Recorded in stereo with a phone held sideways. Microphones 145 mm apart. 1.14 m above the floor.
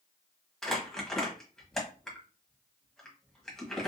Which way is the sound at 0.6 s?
5° left (ahead or behind).